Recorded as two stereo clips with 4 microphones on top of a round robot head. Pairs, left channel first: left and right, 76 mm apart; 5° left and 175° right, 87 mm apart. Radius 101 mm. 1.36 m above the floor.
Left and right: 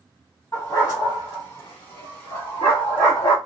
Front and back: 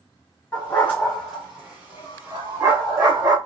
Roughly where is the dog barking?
Ahead left.